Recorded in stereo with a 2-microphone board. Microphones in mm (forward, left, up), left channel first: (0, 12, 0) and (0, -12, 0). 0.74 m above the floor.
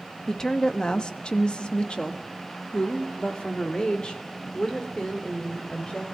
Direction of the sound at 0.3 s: 20° left (ahead or behind).